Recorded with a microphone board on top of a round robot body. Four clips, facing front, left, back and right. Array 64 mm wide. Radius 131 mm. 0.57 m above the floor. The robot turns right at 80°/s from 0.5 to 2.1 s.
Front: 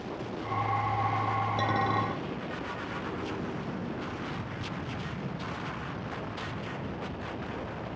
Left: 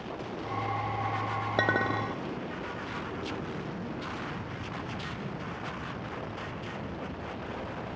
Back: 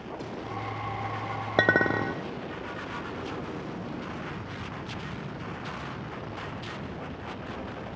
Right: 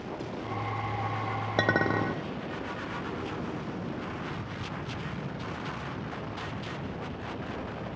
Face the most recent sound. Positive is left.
turn(degrees=-140)